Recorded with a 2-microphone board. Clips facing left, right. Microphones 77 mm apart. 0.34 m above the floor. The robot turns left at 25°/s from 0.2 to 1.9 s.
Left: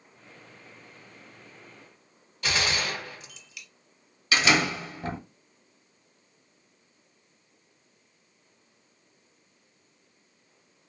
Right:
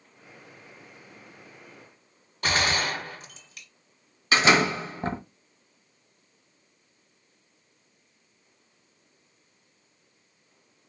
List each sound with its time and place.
2.4 s a gunshot: 45° right (ahead or behind), 0.9 m
4.3 s a door slam: 35° right (ahead or behind), 1.0 m